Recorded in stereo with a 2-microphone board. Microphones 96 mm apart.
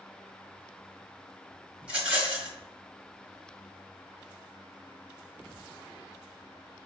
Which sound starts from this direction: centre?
A rattle, at 1.8 s.